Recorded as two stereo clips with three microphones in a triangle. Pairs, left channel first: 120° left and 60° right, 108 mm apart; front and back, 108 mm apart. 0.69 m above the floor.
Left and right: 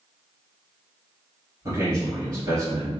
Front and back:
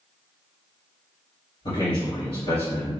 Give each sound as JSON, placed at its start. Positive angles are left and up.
{"t": 1.6, "sound": "a man speaking", "azimuth_deg": -15, "distance_m": 1.7}